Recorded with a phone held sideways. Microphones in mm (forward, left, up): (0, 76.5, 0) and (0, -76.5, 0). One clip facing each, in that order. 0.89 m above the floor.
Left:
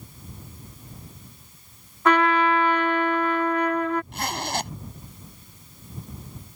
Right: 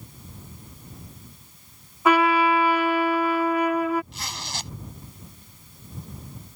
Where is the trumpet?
10° right (ahead or behind).